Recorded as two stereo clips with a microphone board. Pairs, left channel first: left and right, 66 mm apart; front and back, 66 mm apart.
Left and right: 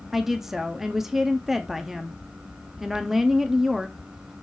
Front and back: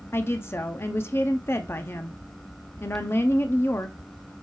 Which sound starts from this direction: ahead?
A woman speaking, at 0.1 s.